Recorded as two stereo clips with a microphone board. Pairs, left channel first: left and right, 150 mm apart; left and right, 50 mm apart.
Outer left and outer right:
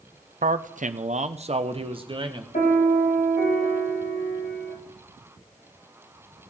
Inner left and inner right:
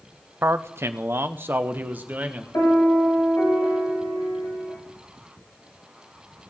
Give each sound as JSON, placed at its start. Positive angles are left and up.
{"t": 0.4, "sound": "a man speaking", "side_deg": -60, "distance_m": 0.6}
{"t": 2.5, "sound": "a piano", "side_deg": 75, "distance_m": 5.5}